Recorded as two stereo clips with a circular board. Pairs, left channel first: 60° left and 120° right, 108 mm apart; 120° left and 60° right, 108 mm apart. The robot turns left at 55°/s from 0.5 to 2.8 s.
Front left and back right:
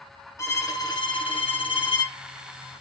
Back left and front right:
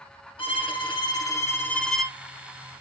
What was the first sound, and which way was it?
A violin, 115° left.